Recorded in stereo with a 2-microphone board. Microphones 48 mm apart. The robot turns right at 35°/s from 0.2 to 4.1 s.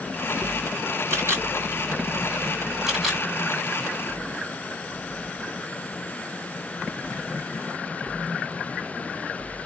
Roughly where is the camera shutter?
Right.